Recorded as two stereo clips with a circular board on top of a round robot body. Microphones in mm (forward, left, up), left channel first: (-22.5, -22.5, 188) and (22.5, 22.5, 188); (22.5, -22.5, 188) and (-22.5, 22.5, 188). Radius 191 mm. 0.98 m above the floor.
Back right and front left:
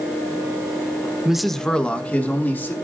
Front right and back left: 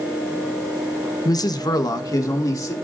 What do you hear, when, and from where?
1.2 s a man speaking: 35° right, 0.9 m; by 2.7 s 75° right, 2.5 m